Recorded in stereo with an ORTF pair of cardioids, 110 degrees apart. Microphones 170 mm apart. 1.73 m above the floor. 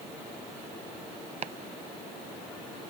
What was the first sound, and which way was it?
Chopping, 40° right.